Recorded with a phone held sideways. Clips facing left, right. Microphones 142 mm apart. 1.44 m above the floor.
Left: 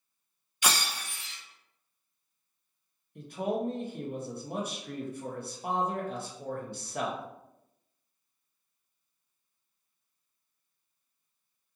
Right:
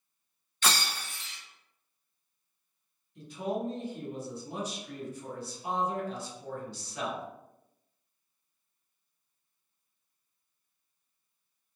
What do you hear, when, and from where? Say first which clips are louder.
0.6 s breaking glass: even; 10° left (ahead or behind), 0.6 m
3.1 s a man speaking: left 2 dB; 60° left (ahead or behind), 0.8 m